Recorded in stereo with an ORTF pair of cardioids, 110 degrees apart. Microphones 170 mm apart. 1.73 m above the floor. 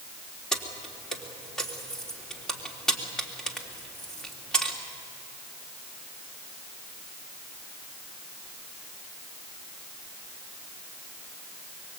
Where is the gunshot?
No gunshot in this recording.